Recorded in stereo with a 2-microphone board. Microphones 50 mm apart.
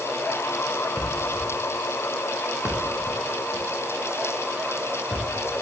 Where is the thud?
30° right (ahead or behind), 9.5 m.